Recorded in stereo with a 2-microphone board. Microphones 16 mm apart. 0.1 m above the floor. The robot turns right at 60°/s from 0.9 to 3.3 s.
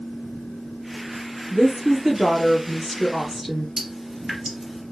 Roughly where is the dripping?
Centre.